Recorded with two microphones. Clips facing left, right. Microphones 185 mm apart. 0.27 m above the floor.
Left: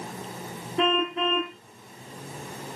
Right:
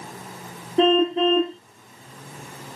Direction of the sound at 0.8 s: 30° right (ahead or behind).